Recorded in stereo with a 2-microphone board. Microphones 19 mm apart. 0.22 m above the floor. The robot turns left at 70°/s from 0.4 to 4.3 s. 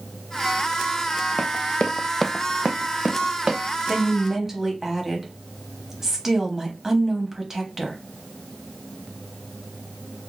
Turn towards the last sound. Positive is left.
turn(degrees=-20)  # may be behind; listen again after turning